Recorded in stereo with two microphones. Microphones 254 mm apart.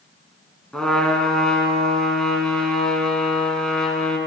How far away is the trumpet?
About 1.5 m.